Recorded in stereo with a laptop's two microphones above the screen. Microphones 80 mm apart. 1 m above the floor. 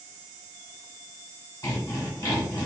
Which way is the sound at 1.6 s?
45° left (ahead or behind).